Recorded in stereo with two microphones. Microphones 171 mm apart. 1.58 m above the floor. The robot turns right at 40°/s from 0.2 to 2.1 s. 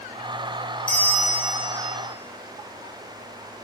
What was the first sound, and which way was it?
A bell, 130° left.